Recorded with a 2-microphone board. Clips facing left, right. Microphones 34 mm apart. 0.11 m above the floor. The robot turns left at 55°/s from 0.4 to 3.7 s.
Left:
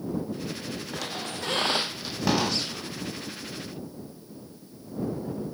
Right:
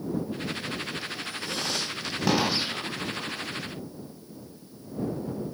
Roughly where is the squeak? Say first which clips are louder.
Left 1 dB; left.